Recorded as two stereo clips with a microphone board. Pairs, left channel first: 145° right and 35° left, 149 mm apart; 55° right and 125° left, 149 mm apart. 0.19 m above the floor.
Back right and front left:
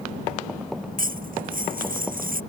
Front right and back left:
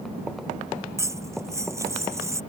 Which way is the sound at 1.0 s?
55° left.